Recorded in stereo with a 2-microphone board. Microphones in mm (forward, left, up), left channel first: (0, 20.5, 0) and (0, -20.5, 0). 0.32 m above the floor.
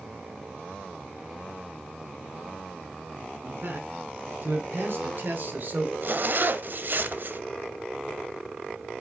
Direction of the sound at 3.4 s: 65° right (ahead or behind).